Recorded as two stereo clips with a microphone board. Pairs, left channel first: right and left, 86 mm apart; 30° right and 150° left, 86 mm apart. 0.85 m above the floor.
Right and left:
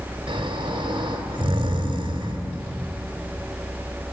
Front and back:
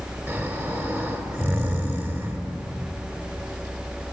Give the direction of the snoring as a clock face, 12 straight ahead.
9 o'clock.